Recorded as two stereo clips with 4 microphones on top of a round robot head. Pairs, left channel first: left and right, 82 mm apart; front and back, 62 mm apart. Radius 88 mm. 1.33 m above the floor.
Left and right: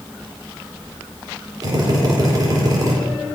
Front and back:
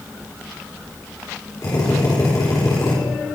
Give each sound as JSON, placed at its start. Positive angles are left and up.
{"t": 1.6, "sound": "a drill", "azimuth_deg": -45, "distance_m": 4.0}